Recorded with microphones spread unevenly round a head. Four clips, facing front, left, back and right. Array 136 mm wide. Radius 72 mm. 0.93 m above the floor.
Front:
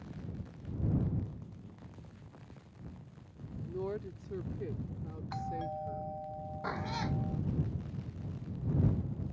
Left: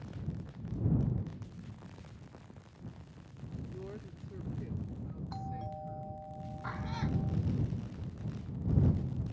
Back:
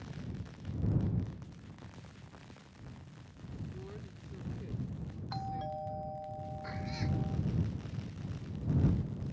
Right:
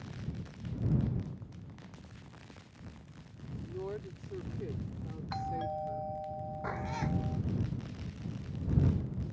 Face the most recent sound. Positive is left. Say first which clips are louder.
# right 1 dB, front 5 dB
turn(degrees=-30)